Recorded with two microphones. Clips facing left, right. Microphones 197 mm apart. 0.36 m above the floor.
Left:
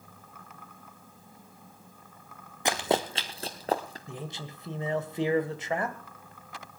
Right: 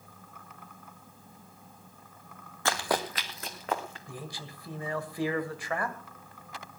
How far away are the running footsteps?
About 1.1 m.